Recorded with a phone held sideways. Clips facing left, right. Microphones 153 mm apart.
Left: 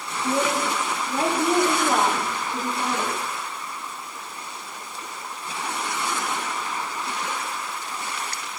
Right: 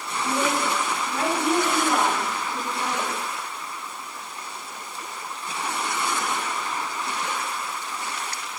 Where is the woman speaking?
25° left (ahead or behind), 4 m.